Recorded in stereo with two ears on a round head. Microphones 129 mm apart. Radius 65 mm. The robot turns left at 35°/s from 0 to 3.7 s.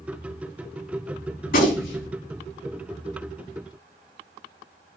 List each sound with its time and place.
1.5 s a gunshot: 75° left (ahead or behind), 3.5 m; by 2.1 s 80° left, 3.5 m